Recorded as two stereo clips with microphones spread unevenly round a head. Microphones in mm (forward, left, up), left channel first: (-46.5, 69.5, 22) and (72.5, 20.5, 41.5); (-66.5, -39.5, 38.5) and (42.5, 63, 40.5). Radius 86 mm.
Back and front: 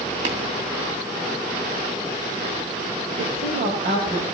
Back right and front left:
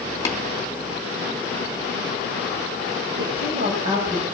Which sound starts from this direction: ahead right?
Tapping, at 0.2 s.